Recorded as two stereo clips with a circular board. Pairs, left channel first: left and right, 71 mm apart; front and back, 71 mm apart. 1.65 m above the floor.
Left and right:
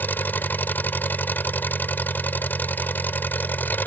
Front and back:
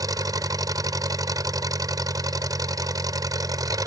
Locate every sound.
0.0 s an engine running: 150° left